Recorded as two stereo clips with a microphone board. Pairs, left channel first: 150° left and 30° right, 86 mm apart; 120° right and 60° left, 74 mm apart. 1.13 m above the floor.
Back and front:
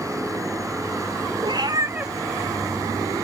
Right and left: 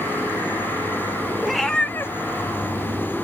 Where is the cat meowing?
25° right, 0.9 m; by 3.2 s 170° right, 1.6 m.